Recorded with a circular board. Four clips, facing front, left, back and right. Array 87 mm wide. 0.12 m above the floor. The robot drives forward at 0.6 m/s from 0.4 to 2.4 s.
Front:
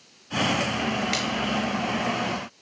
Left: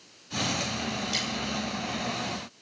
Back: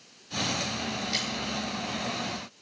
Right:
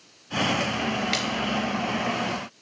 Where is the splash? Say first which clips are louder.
Right 6 dB, front 6 dB; 55° right, 3 m.